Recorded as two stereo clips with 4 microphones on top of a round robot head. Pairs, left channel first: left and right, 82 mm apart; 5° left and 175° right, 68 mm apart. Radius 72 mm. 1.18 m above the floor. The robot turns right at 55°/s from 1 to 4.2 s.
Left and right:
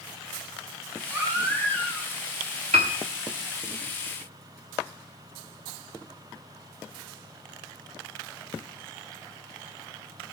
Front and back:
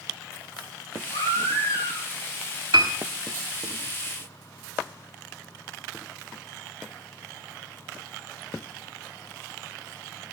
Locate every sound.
1.1 s a baby crying: 35° right, 7.5 m; by 2.1 s 20° left, 7.5 m
2.7 s a piano: 115° right, 0.9 m; by 2.9 s 105° right, 0.9 m